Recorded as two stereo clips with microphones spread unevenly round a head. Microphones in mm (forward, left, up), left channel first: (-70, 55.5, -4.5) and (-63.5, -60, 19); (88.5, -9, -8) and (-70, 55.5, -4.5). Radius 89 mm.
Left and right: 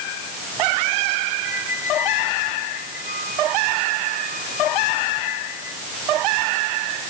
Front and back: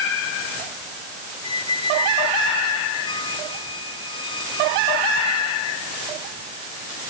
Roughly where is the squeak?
Ahead left.